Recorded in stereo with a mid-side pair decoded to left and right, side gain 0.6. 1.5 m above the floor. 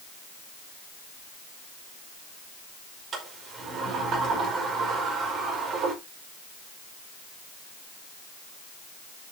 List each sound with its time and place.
3.1 s a sliding door: 40° right, 5 m